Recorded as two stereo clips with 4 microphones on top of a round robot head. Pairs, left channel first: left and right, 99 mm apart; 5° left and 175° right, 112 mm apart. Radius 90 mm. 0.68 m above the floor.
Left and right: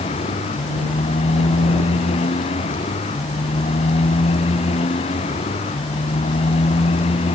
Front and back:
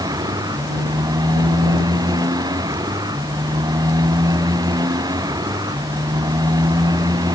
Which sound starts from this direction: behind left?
A motorcycle, at 0.0 s.